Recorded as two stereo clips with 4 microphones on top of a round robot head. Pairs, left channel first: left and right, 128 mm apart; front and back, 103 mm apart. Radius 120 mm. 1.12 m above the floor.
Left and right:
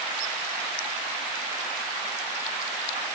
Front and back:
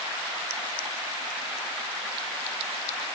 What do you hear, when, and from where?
Only background noise.